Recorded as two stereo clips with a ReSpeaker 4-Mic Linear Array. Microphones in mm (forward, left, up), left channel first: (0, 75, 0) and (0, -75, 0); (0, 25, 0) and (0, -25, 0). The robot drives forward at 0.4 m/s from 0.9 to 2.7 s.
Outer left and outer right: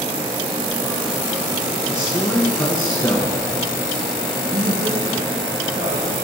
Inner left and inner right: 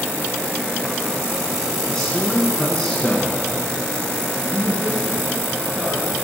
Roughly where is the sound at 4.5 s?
Right.